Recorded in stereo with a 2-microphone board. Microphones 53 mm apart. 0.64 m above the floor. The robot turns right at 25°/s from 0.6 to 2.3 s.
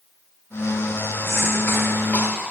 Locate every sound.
1.2 s a cough: 60° left (ahead or behind), 3 m; by 2.5 s 35° left (ahead or behind), 3 m